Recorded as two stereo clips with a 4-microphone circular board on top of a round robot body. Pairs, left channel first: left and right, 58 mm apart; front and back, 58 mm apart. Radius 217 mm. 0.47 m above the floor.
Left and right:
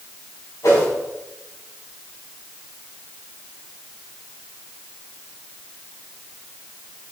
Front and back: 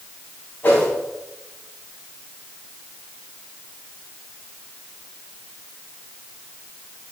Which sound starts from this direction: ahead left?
A whoosh, at 0.6 s.